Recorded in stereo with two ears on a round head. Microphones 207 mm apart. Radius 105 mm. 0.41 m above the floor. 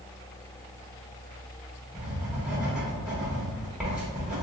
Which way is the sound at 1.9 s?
5° right (ahead or behind).